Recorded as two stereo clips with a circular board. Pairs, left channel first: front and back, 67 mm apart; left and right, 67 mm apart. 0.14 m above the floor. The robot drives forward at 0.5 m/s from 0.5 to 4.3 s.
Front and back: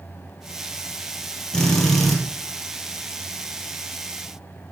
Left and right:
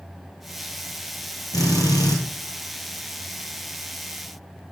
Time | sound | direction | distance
1.5 | a drill | 80° left | 2 m